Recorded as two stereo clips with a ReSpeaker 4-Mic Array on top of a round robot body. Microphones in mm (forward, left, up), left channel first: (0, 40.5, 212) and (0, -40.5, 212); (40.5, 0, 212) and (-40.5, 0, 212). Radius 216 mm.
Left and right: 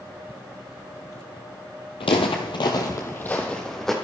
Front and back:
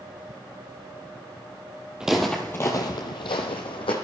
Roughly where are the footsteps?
Left.